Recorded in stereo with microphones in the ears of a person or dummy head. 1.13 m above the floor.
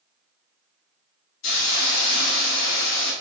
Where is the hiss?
70° left (ahead or behind), 1.6 m.